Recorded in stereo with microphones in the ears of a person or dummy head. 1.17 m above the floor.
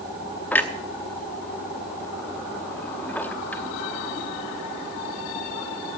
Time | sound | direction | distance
0.5 | a clunk | 10° left (ahead or behind) | 0.8 m